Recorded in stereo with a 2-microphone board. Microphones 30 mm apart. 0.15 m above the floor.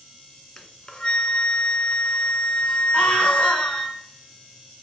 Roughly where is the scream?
Left.